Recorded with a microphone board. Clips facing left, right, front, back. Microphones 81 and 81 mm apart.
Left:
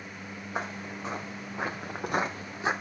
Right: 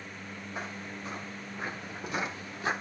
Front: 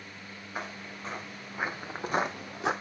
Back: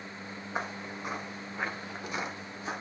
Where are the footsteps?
115° left, 2.5 m; by 2.7 s 15° left, 1.8 m.